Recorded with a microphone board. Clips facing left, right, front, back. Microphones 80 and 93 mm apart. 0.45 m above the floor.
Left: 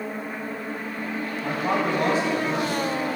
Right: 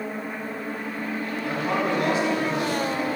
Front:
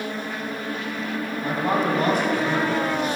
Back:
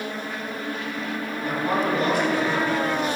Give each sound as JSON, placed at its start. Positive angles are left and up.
{"t": 1.4, "sound": "a man speaking", "azimuth_deg": 40, "distance_m": 2.5}